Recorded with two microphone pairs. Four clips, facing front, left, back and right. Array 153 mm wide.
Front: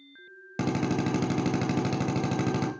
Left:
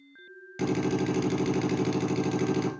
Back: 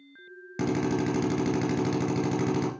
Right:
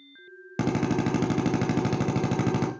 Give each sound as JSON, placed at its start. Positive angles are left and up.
{"t": 0.6, "sound": "a drill", "azimuth_deg": -65, "distance_m": 2.0}